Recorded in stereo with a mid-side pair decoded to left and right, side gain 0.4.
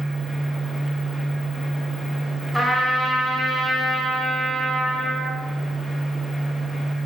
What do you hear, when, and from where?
0.0 s a fan: 5° left, 1.6 m
2.5 s a trumpet: straight ahead, 2.5 m